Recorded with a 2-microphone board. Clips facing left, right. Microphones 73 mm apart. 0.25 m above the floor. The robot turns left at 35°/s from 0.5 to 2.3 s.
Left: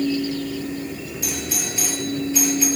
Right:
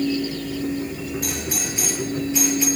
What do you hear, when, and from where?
1.2 s a doorbell: 55° right (ahead or behind), 9 m; by 2.7 s 20° right (ahead or behind), 9 m